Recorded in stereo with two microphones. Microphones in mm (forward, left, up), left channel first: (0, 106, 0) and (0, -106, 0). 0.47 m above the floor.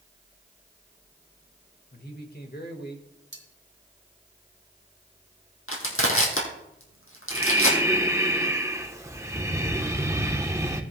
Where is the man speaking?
50° left (ahead or behind), 1.5 m.